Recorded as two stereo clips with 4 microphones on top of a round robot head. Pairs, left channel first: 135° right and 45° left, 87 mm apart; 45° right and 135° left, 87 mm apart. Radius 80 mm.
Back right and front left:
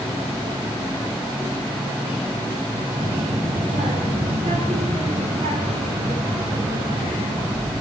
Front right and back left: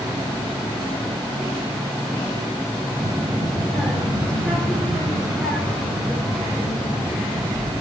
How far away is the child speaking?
About 3 m.